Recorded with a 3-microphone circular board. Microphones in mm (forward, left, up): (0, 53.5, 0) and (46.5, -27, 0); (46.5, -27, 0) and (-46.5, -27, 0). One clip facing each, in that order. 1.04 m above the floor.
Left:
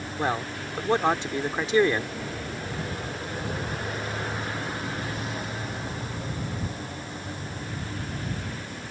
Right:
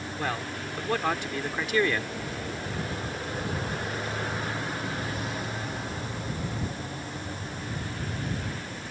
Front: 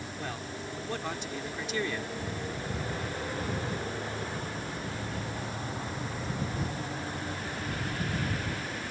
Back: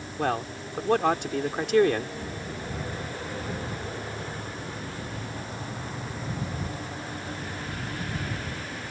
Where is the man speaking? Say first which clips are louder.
Left 5 dB, back 12 dB; straight behind.